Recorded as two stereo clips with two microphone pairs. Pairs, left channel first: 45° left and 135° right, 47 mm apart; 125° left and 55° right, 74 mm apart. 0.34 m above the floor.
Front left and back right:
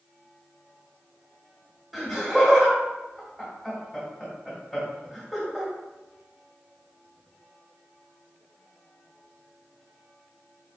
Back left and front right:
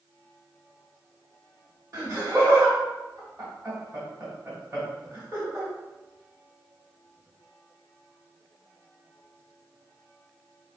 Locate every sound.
1.9 s laughter: 50° right, 1.6 m